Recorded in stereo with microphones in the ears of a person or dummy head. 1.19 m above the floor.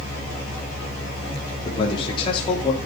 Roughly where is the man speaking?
Left.